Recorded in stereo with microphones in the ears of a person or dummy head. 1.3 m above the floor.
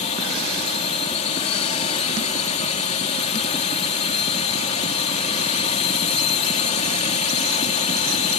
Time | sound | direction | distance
0.0 | a drone | 40° left (ahead or behind) | ?